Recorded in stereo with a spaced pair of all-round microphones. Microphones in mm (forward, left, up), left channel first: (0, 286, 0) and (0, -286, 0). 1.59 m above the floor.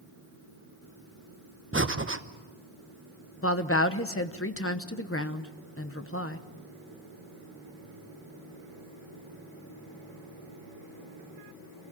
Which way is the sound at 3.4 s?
20° left (ahead or behind).